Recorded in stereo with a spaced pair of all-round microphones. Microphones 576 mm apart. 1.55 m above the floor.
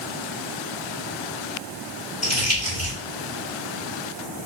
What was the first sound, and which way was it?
Crumpling, 25° left (ahead or behind).